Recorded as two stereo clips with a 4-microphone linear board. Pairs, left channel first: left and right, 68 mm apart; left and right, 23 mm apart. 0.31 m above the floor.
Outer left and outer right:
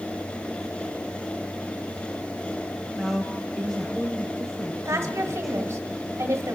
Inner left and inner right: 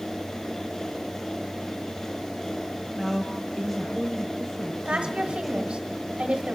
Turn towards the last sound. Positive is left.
turn(degrees=-45)  # may be behind; listen again after turning